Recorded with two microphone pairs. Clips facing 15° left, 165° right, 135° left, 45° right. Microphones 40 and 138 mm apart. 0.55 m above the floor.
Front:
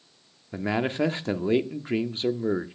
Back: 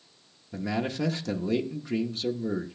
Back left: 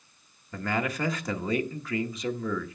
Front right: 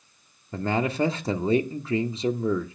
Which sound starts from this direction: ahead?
A man speaking, at 0.5 s.